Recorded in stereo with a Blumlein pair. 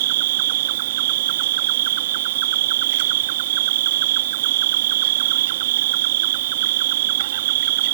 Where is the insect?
55° right.